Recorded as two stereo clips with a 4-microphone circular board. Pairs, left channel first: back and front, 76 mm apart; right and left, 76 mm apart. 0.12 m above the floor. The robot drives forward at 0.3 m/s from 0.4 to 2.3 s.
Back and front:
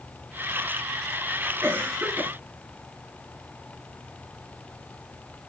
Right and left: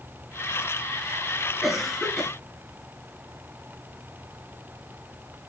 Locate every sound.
1.6 s a cough: 5° left, 1.3 m